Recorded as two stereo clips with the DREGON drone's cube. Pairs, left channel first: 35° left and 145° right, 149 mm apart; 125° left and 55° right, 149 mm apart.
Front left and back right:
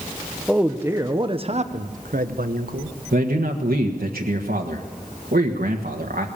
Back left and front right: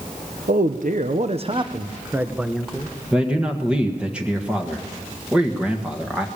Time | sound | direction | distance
0.5 | a man speaking | 60° right | 1.2 m
3.1 | a man speaking | 140° right | 1.5 m